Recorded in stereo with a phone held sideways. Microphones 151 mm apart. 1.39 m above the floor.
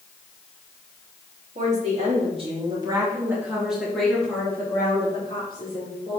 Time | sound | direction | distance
1.6 | a woman speaking | 55° right (ahead or behind) | 3.5 m